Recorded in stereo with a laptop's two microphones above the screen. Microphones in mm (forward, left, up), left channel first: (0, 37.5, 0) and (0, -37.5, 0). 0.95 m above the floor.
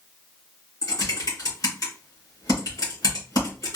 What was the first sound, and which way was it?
Typing on a keyboard, 55° left (ahead or behind).